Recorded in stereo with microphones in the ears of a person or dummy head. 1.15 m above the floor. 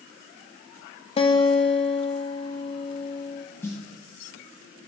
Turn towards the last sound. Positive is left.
turn(degrees=15)  # may be behind; listen again after turning